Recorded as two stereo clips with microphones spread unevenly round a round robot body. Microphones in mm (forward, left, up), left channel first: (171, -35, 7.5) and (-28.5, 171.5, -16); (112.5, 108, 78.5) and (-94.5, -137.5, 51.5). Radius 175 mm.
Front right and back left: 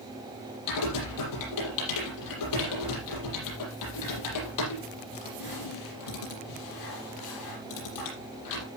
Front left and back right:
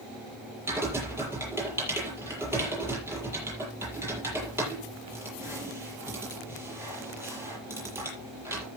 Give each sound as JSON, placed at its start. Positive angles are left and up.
{"t": 0.7, "sound": "typing on a keyboard", "azimuth_deg": -45, "distance_m": 7.5}